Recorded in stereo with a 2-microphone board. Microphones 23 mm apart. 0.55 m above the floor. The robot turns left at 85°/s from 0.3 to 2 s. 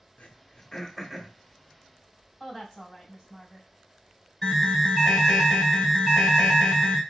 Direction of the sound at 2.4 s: 15° left (ahead or behind).